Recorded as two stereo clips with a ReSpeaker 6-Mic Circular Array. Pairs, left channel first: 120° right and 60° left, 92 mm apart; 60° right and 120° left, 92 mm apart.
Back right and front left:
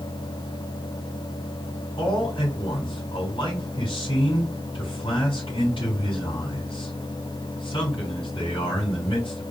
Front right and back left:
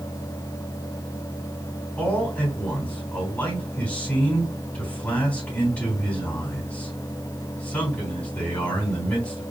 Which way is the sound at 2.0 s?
140° right.